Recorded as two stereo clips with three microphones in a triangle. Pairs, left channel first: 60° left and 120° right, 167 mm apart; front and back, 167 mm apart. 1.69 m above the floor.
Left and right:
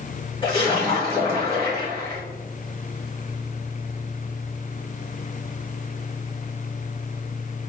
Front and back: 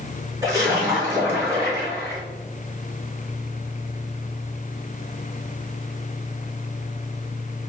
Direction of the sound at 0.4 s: 115° left.